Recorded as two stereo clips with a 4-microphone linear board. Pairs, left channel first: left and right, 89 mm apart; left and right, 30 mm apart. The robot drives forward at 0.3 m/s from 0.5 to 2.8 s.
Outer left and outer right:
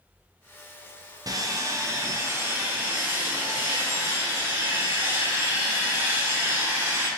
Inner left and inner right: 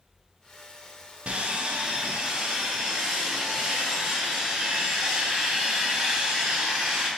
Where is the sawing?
45° right (ahead or behind), 0.5 m; by 7.1 s 25° right (ahead or behind), 0.9 m.